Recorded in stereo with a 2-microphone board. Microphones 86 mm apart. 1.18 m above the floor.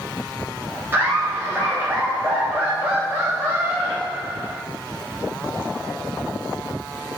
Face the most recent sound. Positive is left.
turn(degrees=-25)  # may be behind; listen again after turning